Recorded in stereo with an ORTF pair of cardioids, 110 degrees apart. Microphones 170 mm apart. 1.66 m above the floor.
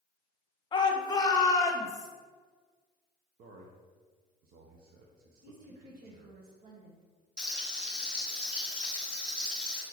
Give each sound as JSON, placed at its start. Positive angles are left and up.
{"t": 0.7, "sound": "a shout", "azimuth_deg": 30, "distance_m": 0.9}
{"t": 3.4, "sound": "a man speaking", "azimuth_deg": -65, "distance_m": 0.9}
{"t": 5.4, "sound": "a woman speaking", "azimuth_deg": -60, "distance_m": 1.7}
{"t": 7.4, "sound": "frying", "azimuth_deg": -5, "distance_m": 2.0}